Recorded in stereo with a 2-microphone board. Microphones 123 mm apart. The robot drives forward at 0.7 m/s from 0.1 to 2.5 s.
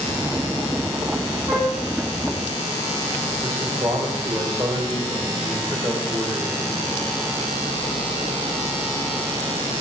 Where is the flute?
45° right (ahead or behind), 1.5 m; by 1.8 s 50° right (ahead or behind), 1.3 m.